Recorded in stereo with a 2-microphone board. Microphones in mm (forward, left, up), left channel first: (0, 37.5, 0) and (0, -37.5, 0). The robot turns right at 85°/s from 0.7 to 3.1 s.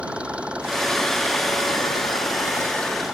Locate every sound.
0.0 s an engine running: 15° right; by 3.1 s 170° right